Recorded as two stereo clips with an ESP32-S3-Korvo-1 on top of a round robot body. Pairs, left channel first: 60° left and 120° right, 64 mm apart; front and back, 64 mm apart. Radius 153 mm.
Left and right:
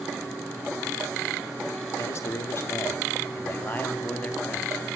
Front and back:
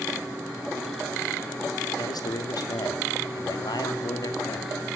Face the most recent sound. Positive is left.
turn(degrees=-15)